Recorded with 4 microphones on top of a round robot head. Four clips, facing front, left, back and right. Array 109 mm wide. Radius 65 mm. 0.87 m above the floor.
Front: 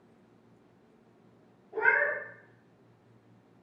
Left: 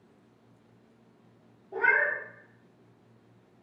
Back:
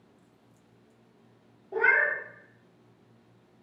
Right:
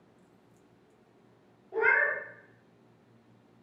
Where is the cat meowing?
175° left, 0.9 m.